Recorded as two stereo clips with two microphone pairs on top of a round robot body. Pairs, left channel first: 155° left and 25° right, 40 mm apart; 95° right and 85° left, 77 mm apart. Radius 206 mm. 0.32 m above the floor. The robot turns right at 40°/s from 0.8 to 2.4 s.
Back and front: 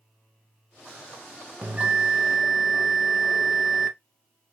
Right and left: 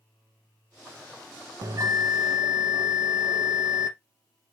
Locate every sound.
1.6 s a bell: 30° left, 0.6 m; by 3.9 s 60° left, 0.6 m